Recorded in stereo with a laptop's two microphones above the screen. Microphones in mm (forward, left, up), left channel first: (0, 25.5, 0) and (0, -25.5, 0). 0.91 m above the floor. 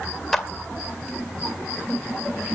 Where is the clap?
5° left (ahead or behind), 2 m.